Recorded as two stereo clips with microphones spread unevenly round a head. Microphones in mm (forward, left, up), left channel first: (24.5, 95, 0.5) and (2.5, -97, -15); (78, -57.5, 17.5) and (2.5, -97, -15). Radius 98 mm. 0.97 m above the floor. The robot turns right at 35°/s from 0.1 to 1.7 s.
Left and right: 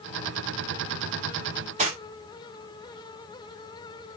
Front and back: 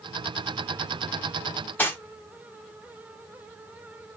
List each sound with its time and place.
1.8 s cutlery clinking: 40° right, 1.8 m